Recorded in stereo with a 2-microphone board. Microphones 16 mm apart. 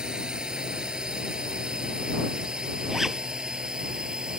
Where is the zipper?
20° right (ahead or behind).